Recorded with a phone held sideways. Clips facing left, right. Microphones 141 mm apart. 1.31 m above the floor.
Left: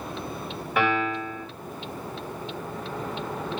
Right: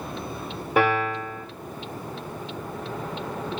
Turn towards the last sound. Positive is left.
turn(degrees=-35)  # may be behind; listen again after turning